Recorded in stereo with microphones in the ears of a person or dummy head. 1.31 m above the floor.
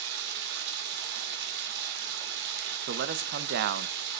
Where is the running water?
65° right (ahead or behind), 3 m.